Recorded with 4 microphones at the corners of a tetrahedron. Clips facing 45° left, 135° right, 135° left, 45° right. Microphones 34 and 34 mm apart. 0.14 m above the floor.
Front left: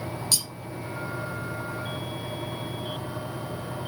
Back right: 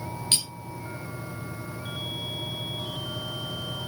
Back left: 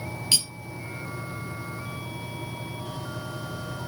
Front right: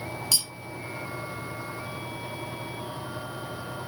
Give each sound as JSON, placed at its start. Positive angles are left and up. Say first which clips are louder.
{"t": 0.3, "sound": "cutlery clinking", "louder": "back right 2 dB, back left 4 dB", "azimuth_deg": 180, "distance_m": 1.5}